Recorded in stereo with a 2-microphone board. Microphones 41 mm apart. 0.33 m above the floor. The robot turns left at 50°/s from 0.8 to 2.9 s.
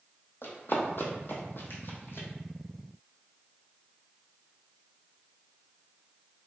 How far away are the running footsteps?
About 1.0 m.